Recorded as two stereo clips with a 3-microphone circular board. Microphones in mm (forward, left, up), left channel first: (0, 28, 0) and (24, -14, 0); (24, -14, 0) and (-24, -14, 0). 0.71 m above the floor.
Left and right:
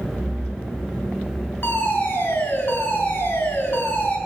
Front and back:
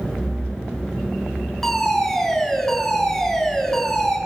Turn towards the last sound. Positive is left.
turn(degrees=85)